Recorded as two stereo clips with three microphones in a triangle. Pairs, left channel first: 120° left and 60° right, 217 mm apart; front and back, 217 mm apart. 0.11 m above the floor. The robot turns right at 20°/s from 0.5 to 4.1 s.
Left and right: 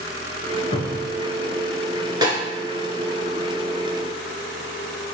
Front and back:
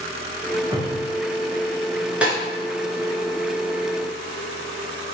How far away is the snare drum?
About 1.2 m.